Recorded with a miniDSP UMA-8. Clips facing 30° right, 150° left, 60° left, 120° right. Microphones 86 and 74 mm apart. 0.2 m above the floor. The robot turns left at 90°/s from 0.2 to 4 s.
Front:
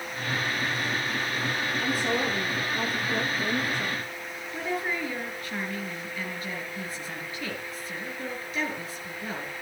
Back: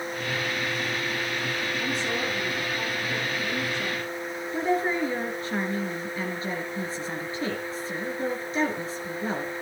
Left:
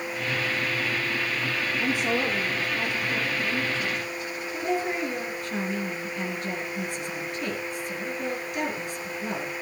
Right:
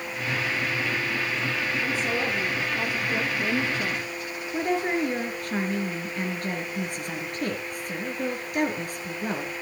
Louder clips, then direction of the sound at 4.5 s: Back 6 dB, right 2 dB; 150° right.